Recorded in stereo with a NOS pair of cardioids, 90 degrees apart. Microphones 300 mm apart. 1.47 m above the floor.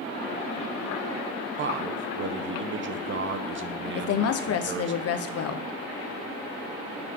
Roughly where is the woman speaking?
Ahead left.